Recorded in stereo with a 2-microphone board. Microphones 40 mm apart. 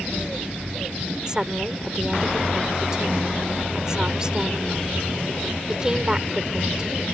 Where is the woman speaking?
20° right (ahead or behind).